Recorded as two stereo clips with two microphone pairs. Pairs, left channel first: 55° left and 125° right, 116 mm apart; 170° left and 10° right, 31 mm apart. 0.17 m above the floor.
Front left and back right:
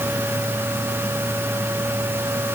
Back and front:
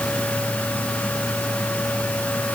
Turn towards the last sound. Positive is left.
No sound to turn to.